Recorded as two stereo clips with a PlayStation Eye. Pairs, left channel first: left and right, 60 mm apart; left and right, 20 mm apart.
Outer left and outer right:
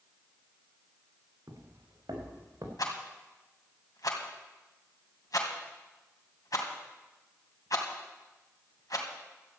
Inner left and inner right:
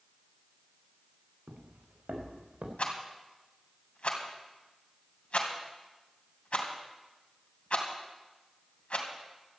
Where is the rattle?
80° left, 2.5 m.